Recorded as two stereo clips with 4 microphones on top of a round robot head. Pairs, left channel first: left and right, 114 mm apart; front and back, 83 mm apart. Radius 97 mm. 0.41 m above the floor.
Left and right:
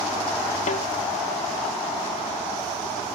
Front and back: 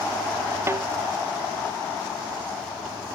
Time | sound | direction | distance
0.7 | a snare drum | 125° left | ?